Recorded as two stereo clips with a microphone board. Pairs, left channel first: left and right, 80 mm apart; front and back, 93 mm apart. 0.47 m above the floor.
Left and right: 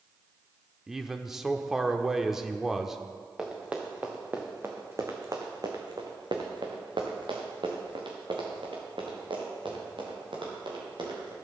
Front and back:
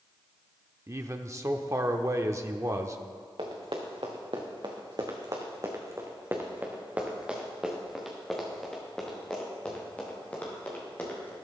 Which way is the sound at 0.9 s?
170° right.